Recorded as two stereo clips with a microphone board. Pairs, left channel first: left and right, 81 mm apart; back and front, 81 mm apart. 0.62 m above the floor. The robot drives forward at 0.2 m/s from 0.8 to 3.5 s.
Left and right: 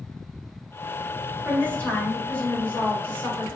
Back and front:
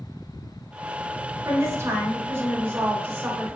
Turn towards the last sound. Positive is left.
turn(degrees=50)